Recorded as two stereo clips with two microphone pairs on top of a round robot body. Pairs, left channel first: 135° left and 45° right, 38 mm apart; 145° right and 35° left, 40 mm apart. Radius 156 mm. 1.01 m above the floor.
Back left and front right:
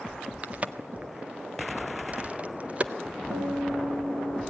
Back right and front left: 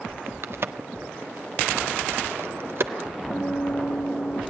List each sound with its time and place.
0.4 s a crack: 15° left, 1.6 m
3.3 s a guitar: 90° right, 6.5 m